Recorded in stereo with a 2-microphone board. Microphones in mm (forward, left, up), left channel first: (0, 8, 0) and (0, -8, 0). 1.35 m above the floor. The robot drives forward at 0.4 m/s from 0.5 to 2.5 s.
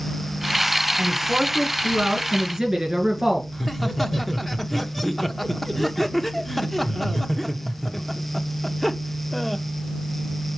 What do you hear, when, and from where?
1.0 s a man speaking: 55° right (ahead or behind), 1.3 m; by 3.4 s 40° right (ahead or behind), 1.7 m
3.5 s laughter: 10° left (ahead or behind), 0.9 m